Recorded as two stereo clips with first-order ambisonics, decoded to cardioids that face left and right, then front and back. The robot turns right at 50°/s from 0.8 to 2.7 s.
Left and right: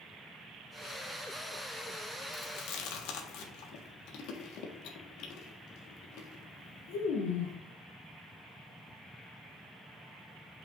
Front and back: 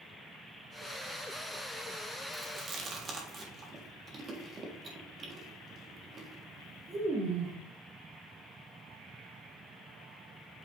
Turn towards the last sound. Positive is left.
turn(degrees=115)